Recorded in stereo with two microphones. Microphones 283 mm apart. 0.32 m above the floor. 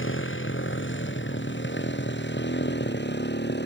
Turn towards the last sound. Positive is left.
turn(degrees=35)  # may be behind; listen again after turning